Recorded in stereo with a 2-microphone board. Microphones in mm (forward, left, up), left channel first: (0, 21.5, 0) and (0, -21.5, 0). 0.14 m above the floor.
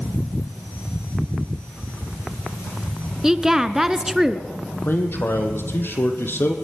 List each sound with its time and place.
3.2 s a woman speaking: 10° right (ahead or behind), 1.6 m
4.7 s a man speaking: 55° left (ahead or behind), 4.5 m